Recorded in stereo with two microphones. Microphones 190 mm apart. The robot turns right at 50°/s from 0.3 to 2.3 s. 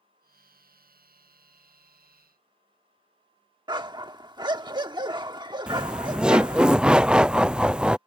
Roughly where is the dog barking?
Right.